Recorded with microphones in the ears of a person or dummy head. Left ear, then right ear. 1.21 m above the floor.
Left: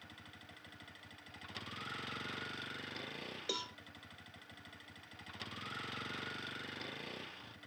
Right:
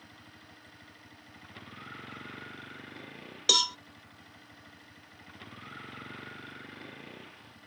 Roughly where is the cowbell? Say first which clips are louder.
Right 18 dB; right.